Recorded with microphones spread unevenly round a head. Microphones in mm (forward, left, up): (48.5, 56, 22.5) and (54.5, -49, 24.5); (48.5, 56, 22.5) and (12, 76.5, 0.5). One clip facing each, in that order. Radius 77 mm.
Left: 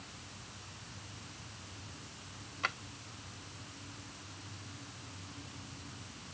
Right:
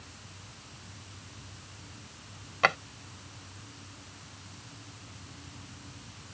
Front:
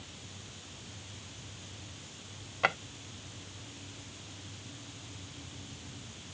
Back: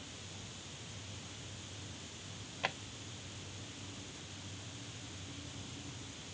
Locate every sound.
2.6 s a drawer: 70° right